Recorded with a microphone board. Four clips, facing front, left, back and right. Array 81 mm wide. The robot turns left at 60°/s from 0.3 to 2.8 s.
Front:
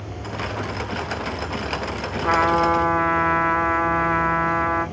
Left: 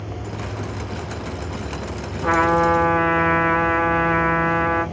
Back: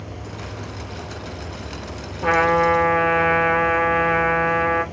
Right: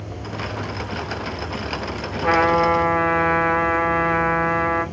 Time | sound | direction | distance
2.2 | a trumpet | 155° right | 1.7 m